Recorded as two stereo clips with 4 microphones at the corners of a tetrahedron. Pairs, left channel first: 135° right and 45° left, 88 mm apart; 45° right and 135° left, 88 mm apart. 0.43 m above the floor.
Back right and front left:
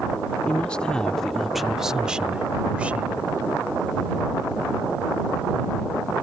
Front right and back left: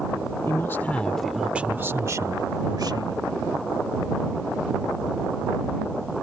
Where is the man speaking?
70° right; by 3.2 s 115° left.